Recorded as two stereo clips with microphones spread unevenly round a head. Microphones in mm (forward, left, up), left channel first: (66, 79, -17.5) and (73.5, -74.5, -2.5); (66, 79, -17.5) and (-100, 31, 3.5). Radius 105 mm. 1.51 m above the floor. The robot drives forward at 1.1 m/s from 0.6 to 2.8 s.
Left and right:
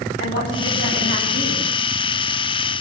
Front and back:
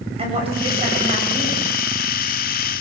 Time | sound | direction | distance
0.2 | a woman speaking | 140° left | 10 m